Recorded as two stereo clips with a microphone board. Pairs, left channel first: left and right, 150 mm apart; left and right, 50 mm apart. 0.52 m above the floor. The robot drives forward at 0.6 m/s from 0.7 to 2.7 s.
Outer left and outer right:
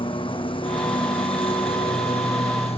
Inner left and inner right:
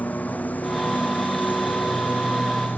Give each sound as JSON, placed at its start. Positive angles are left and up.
{"t": 0.0, "sound": "a lawn mower", "side_deg": 35}